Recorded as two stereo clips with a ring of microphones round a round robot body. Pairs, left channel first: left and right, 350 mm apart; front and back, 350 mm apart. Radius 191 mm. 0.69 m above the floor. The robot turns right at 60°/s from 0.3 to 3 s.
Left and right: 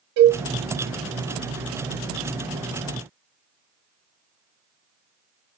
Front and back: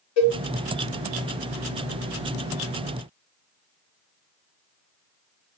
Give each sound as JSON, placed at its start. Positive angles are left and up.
{"t": 0.2, "sound": "a cowbell", "azimuth_deg": -45, "distance_m": 0.7}